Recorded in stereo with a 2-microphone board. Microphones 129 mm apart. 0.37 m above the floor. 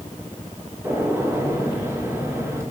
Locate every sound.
0.8 s a gunshot: 20° right (ahead or behind), 4.5 m